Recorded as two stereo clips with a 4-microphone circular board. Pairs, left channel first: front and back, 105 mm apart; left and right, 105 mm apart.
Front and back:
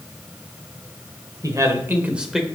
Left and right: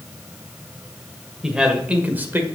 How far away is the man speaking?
About 1.7 m.